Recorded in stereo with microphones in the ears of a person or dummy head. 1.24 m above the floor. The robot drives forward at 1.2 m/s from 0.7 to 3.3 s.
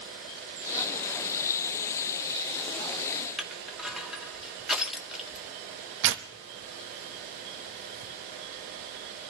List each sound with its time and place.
3.4 s crushing: 5° right (ahead or behind), 1.7 m
6.0 s tearing paper: 65° right (ahead or behind), 0.9 m